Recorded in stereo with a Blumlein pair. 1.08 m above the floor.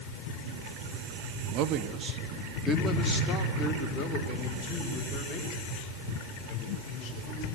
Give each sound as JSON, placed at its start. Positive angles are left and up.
{"t": 1.5, "sound": "a man speaking", "azimuth_deg": -40, "distance_m": 1.7}